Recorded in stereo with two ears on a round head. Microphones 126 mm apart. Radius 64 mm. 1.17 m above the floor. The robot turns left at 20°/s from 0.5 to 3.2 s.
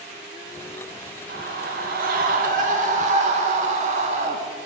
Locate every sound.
1.3 s a scream: 85° right, 1.3 m; by 4.4 s 120° right, 1.3 m